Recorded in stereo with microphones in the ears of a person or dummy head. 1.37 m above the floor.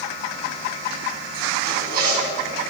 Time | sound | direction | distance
1.6 | a zipper | 55° right (ahead or behind) | 3.5 m